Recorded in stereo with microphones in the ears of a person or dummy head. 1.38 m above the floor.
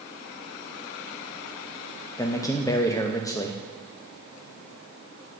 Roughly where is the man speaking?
Centre.